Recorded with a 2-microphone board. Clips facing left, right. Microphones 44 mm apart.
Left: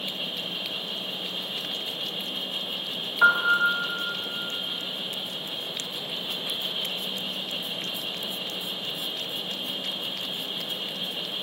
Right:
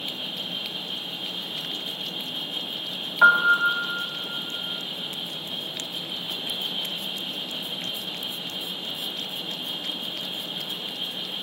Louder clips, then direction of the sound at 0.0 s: Even; 85° left.